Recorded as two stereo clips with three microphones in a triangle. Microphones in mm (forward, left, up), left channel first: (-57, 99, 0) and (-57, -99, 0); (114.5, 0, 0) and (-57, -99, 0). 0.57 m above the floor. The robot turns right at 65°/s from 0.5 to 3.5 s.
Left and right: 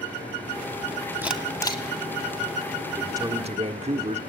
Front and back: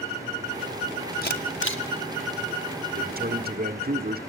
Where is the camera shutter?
10° right, 2 m; by 1.8 s 30° left, 2 m.